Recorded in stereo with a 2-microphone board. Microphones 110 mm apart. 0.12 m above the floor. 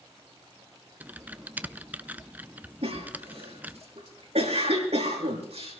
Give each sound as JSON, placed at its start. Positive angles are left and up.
{"t": 1.0, "sound": "typing on a keyboard", "side_deg": -15, "distance_m": 0.5}
{"t": 2.8, "sound": "a cough", "side_deg": -70, "distance_m": 5.5}